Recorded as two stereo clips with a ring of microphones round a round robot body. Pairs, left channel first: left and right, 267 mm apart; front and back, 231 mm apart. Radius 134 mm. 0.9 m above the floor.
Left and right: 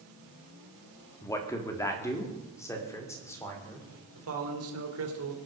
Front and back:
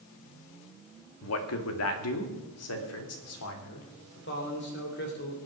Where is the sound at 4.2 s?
50° right, 3 m.